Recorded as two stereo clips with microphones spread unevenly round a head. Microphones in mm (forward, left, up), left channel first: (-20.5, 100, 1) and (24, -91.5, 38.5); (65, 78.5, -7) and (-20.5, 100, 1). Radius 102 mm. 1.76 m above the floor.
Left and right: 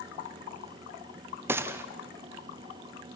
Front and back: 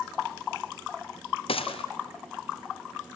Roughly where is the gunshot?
Ahead.